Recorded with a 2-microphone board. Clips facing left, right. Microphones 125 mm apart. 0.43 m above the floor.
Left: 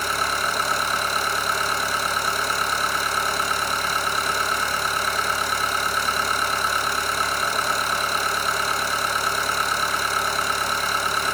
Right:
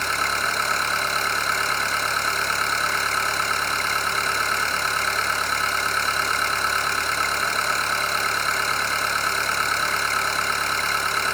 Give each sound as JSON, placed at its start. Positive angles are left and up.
{"t": 0.0, "sound": "an engine running", "side_deg": 10, "distance_m": 1.2}